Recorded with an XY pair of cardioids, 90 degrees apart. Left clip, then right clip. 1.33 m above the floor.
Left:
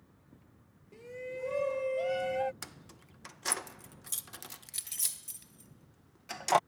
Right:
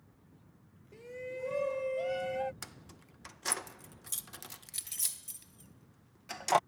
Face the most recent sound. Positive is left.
turn(degrees=10)